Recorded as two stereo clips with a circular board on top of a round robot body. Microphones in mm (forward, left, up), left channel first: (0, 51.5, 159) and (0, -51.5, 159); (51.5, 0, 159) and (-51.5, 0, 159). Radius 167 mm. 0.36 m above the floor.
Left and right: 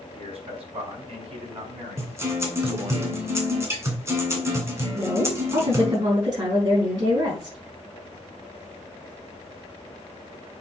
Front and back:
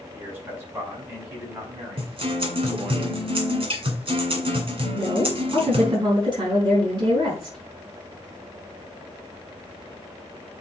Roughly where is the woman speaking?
Behind right.